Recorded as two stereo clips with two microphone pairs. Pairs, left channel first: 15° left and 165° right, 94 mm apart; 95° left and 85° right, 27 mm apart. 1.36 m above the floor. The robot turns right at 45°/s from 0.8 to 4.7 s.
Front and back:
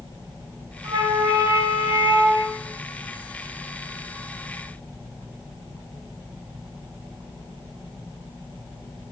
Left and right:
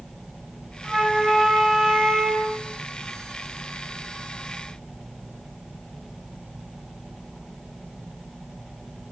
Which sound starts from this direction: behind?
A flute, at 0.8 s.